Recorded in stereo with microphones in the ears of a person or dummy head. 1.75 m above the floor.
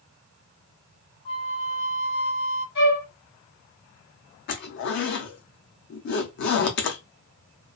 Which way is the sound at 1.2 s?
25° left (ahead or behind).